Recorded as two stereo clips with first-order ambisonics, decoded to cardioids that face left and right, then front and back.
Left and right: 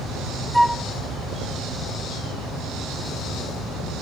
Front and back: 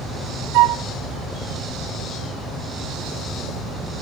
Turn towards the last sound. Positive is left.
turn(degrees=180)